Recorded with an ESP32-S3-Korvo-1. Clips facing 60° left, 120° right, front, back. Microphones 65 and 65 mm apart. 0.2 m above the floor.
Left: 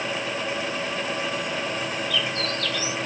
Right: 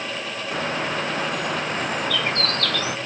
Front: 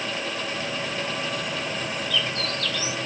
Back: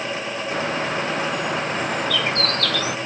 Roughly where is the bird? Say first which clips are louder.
Right 3 dB, back 6 dB; behind right.